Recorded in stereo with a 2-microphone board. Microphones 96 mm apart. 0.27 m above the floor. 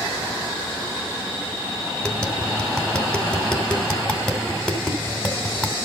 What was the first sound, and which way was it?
Tapping, 5° left (ahead or behind).